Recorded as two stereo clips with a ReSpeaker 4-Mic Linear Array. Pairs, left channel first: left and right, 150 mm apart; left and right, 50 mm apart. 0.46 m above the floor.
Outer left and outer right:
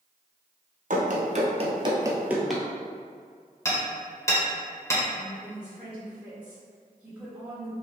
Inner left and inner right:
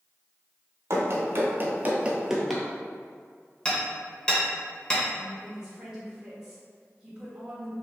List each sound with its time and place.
0.9 s running footsteps: 60° right (ahead or behind), 1.0 m; by 2.6 s 5° left (ahead or behind), 0.7 m
3.6 s hammering: 20° left (ahead or behind), 1.0 m
5.2 s a woman speaking: 10° right (ahead or behind), 1.1 m